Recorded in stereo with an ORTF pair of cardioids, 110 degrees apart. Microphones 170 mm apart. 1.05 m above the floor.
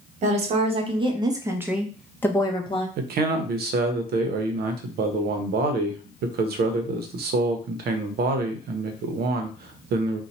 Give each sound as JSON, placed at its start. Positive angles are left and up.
{"t": 0.2, "sound": "a woman speaking", "azimuth_deg": -45, "distance_m": 1.3}
{"t": 3.0, "sound": "a man speaking", "azimuth_deg": -65, "distance_m": 0.7}